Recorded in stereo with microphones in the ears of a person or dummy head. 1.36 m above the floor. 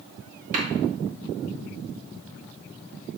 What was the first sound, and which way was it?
A clap, 50° right (ahead or behind).